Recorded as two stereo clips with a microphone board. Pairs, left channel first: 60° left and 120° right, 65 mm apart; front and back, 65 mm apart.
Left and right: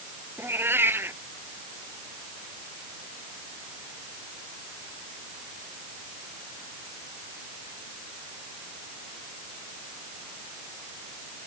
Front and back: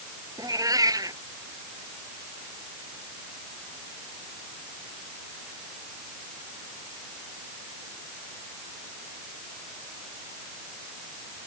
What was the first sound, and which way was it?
A cat meowing, 175° right.